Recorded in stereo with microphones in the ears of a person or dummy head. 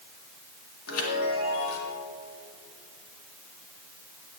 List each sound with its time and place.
0.9 s a chime: 85° left, 2 m